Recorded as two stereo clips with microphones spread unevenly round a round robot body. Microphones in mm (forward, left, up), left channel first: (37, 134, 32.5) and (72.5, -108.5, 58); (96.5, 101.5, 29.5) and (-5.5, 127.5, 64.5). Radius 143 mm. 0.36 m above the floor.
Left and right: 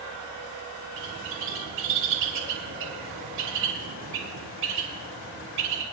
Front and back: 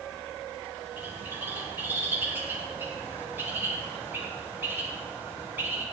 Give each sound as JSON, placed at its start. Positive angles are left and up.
{"t": 1.0, "sound": "a bird", "azimuth_deg": -110, "distance_m": 2.5}